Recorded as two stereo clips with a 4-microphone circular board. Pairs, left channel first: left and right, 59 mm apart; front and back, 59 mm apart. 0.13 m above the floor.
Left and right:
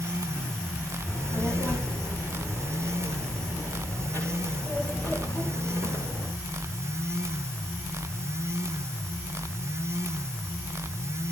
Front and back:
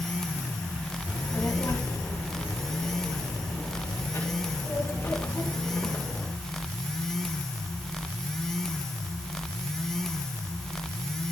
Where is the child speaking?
40° left, 7.5 m; by 6.3 s 45° left, 10 m.